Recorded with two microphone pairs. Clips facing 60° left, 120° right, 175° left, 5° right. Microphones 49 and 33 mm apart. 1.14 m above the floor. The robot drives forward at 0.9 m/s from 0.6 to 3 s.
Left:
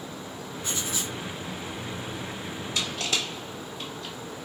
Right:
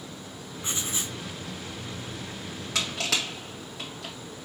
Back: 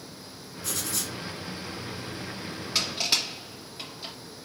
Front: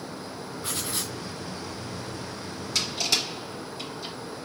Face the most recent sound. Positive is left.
turn(degrees=-125)